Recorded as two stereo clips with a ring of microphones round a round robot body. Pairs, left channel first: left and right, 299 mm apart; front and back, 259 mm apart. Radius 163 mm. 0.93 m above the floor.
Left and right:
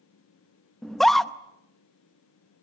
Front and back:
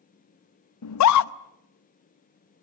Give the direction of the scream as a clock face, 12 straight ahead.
12 o'clock.